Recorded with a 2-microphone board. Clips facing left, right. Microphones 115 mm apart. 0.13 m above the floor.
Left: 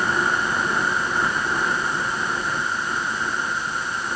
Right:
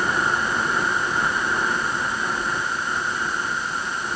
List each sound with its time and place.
Only background noise.